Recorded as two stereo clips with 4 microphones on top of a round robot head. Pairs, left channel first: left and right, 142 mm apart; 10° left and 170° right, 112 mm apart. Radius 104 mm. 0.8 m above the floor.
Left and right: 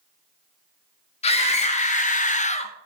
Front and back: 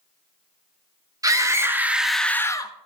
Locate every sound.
1.2 s a scream: 135° left, 2 m; by 2.7 s 55° left, 1.2 m